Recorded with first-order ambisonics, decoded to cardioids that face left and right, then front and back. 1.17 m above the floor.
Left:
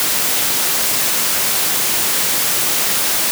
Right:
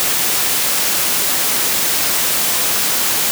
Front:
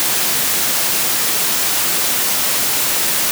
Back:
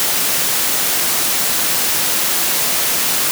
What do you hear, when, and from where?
Only background noise.